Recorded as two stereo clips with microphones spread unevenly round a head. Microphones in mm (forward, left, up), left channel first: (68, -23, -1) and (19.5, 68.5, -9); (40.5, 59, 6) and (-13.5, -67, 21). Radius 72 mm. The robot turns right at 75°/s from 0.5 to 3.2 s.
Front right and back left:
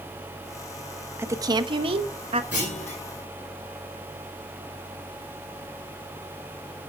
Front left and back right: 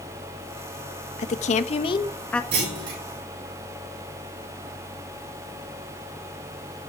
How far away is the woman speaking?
About 1.1 m.